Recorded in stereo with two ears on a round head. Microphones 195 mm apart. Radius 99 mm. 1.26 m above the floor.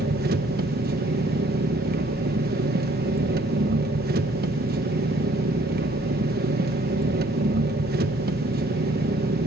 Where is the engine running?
45° right (ahead or behind), 1.1 m.